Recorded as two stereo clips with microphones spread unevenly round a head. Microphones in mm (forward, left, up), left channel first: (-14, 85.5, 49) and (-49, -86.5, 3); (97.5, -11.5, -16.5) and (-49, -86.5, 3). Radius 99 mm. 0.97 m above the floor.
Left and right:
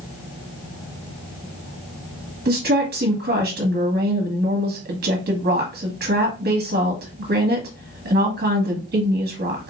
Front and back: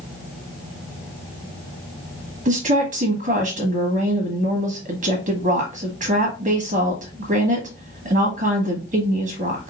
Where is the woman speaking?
110° right, 1.4 m.